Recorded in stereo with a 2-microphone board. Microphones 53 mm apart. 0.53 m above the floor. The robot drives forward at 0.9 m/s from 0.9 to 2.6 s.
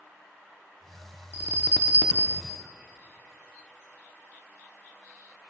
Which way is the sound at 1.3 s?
35° right (ahead or behind).